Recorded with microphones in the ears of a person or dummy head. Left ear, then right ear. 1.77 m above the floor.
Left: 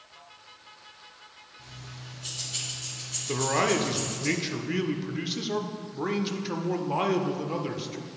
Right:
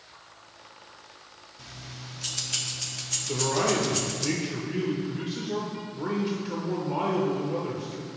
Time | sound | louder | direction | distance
1.6 | keys jangling | right 4 dB | 45° right (ahead or behind) | 1.0 m
3.3 | a man speaking | left 1 dB | 35° left (ahead or behind) | 0.6 m